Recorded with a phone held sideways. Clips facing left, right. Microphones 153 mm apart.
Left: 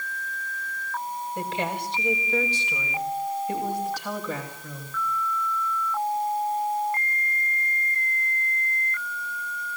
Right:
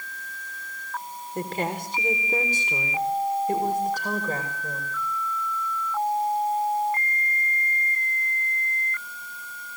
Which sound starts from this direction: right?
A woman speaking, at 1.4 s.